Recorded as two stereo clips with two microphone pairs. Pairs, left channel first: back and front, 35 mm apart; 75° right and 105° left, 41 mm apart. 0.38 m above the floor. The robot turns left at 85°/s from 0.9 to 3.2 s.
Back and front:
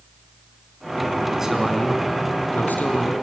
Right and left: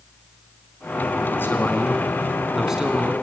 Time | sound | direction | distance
1.3 | a man speaking | 65° right | 4 m